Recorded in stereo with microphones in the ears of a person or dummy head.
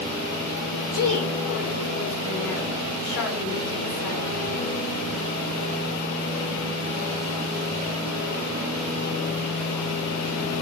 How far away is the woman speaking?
About 3.5 m.